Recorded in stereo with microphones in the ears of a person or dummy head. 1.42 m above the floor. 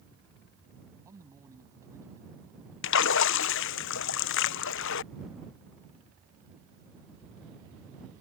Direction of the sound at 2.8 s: 65° left (ahead or behind).